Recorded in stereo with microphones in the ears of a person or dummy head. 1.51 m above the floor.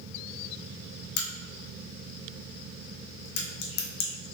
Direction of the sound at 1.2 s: 60° left (ahead or behind).